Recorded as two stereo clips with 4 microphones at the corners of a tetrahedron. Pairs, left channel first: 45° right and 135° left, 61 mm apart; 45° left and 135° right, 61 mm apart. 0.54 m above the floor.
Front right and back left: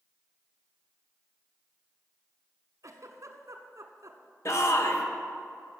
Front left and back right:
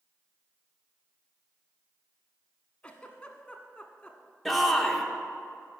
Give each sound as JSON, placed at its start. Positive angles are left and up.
{"t": 2.8, "sound": "a giggle", "azimuth_deg": 115, "distance_m": 0.9}
{"t": 4.5, "sound": "a shout", "azimuth_deg": -45, "distance_m": 1.2}